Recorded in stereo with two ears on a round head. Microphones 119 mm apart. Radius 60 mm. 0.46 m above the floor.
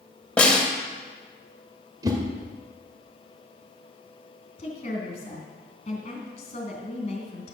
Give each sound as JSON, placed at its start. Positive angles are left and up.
{"t": 0.4, "sound": "a snare drum", "side_deg": 10, "distance_m": 2.0}
{"t": 2.0, "sound": "a whoosh", "side_deg": -25, "distance_m": 1.7}
{"t": 4.6, "sound": "a woman speaking", "side_deg": 45, "distance_m": 3.5}